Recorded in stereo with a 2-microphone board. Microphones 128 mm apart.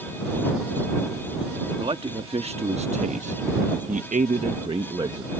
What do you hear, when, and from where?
1.8 s a man speaking: 45° right (ahead or behind); by 5.3 s 30° right (ahead or behind)